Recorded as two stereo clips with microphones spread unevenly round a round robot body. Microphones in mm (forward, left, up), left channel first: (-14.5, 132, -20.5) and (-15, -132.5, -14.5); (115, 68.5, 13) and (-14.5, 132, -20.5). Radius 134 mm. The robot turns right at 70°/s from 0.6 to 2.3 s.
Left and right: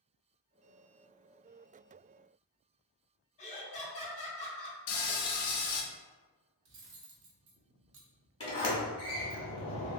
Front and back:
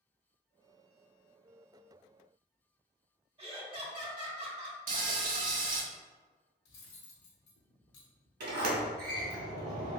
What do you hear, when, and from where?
3.4 s laughter: 150° left, 1.1 m
4.9 s frying: 125° left, 0.7 m
6.7 s cutlery clinking: 40° right, 0.6 m
8.4 s a sliding door: 160° left, 1.0 m